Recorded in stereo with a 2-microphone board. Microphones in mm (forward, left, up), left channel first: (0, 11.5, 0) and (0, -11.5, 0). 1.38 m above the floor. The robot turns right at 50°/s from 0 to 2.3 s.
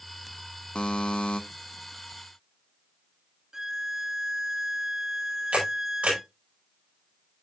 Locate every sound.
0.8 s a buzzer: 65° left, 0.9 m; by 1.4 s 100° left, 0.9 m
3.5 s a violin: 20° right (ahead or behind), 0.5 m
5.5 s a camera shutter: 85° right, 5 m